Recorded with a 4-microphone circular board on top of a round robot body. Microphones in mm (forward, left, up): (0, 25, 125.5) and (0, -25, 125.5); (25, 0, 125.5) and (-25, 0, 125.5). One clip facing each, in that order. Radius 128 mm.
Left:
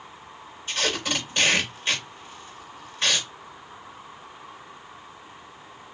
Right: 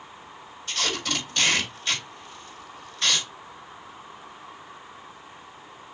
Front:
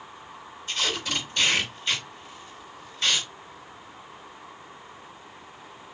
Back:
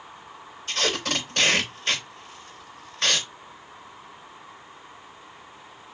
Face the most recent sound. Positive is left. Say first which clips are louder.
# left 2 dB, back 2 dB
turn(degrees=155)